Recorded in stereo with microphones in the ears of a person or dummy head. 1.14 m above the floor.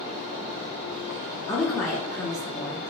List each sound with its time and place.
1.5 s a woman speaking: 15° left (ahead or behind), 0.6 m